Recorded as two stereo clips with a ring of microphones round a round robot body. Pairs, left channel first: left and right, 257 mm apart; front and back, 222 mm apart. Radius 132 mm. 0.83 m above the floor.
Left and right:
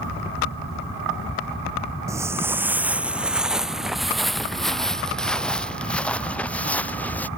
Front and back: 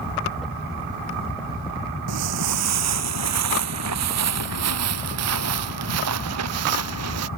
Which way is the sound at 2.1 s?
170° right.